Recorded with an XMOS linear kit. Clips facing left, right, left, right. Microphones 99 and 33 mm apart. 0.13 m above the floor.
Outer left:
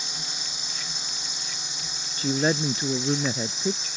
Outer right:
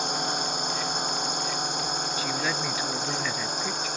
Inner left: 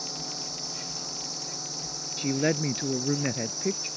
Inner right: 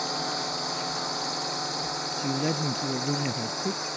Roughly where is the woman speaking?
Left.